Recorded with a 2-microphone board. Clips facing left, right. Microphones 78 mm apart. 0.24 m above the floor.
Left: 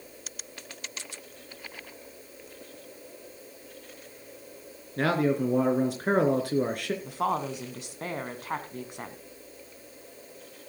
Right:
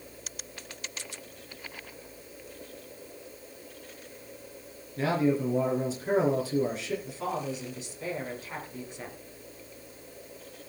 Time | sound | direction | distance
5.0 | a man speaking | 60° left (ahead or behind) | 3.5 m
7.0 | a woman speaking | 55° left (ahead or behind) | 2.5 m